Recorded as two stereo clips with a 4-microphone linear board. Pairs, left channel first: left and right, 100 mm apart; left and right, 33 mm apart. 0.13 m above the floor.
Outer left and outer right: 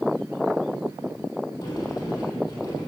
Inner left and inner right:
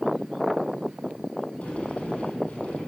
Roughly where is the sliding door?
Left.